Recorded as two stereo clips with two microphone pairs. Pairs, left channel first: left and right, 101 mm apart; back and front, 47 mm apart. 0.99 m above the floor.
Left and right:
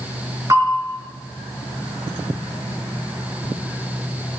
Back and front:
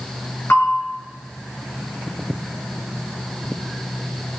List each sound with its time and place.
0.5 s a bell: 145° right, 5 m